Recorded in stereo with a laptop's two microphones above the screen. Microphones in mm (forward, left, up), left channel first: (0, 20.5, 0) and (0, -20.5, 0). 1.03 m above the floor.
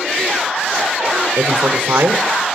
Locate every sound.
1.4 s a man speaking: 85° right, 3 m